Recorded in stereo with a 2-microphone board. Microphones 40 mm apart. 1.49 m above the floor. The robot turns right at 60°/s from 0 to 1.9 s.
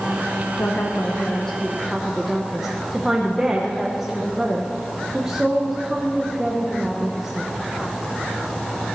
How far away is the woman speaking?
About 1.1 m.